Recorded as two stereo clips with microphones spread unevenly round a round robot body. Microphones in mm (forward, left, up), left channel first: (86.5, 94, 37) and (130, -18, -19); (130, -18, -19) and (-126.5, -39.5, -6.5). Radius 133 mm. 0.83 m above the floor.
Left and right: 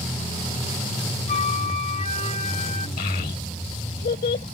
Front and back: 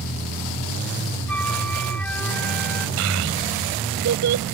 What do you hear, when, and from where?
1.3 s a flute: 90° left
3.0 s a child speaking: 140° left